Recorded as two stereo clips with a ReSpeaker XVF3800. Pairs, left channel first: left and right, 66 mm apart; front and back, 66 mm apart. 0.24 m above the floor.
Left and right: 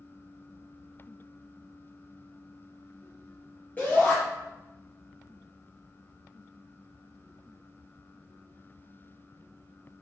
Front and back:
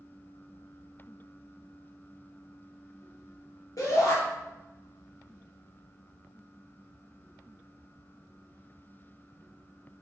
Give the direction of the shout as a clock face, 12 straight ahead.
11 o'clock.